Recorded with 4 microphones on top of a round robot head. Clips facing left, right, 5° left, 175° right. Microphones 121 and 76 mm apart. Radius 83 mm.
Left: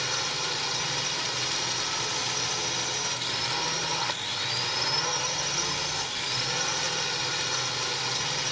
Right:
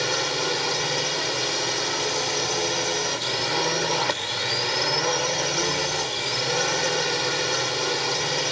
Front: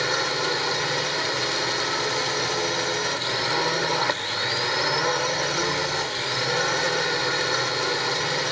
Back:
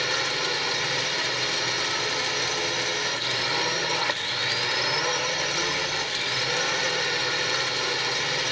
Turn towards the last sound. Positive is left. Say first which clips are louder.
# right 8 dB, front 3 dB
turn(degrees=-70)